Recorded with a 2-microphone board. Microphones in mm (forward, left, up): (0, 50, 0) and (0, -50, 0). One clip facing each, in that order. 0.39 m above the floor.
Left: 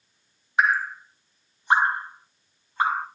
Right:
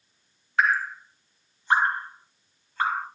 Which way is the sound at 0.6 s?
20° left (ahead or behind).